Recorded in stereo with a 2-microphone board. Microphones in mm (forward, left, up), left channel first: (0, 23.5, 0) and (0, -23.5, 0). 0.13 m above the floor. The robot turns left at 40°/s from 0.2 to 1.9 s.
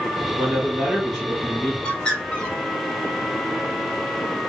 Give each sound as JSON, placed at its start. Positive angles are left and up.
{"t": 0.4, "sound": "a man speaking", "azimuth_deg": -145, "distance_m": 1.7}
{"t": 1.8, "sound": "a bird", "side_deg": 20, "distance_m": 1.8}